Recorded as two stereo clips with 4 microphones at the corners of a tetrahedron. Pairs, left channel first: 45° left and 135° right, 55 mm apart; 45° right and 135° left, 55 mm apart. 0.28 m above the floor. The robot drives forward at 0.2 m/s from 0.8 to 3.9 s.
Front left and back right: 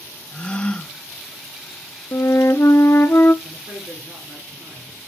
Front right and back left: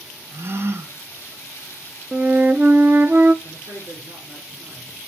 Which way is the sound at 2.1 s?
70° left.